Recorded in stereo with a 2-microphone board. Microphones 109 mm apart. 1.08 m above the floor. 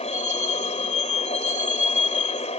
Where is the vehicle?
85° left.